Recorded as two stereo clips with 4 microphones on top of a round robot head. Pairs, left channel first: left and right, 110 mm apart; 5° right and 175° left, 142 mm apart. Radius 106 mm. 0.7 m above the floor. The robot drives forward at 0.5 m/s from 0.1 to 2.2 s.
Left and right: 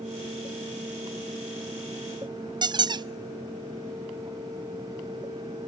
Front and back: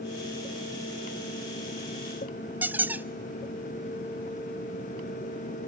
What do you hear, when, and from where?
2.6 s a squeak: 110° right, 0.6 m